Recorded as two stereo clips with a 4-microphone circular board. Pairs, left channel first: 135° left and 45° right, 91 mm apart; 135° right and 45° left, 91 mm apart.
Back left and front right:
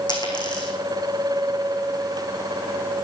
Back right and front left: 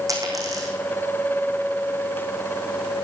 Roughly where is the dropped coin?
Left.